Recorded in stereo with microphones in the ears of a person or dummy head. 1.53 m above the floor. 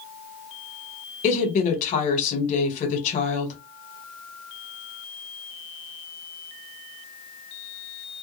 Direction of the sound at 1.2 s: 40° left (ahead or behind).